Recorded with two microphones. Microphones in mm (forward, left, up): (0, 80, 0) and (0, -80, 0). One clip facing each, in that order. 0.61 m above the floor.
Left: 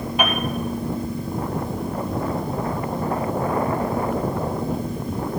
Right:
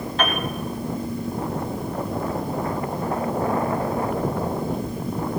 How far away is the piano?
About 2.5 m.